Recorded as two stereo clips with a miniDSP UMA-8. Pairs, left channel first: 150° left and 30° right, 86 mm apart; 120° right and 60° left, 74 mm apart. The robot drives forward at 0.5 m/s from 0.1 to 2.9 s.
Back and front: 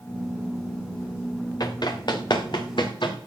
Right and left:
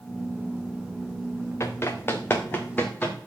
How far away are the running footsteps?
About 2.0 m.